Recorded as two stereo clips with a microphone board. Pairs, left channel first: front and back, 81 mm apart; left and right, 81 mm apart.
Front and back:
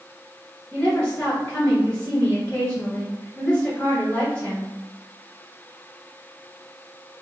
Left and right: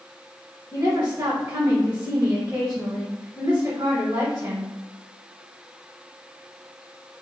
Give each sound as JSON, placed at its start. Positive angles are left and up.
{"t": 0.7, "sound": "a woman speaking", "azimuth_deg": -60, "distance_m": 1.4}